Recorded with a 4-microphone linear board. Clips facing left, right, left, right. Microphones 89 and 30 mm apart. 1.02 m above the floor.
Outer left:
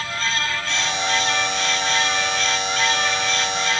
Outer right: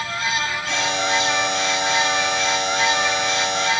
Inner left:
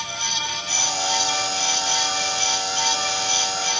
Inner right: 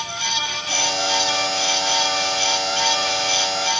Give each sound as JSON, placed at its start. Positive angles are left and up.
{"t": 0.7, "sound": "a buzzer", "side_deg": -80, "distance_m": 7.0}